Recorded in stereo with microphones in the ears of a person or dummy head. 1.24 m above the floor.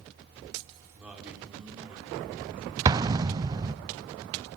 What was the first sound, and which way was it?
A man speaking, 10° right (ahead or behind).